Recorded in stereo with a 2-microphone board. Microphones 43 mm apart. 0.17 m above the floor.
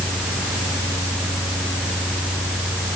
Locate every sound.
Only background noise.